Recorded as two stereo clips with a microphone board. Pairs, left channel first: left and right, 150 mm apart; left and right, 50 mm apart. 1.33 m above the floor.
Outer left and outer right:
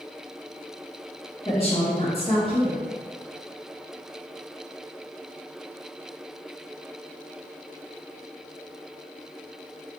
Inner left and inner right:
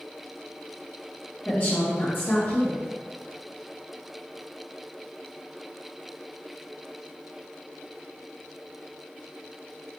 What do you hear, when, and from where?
1.4 s a woman speaking: 40° left (ahead or behind), 1.8 m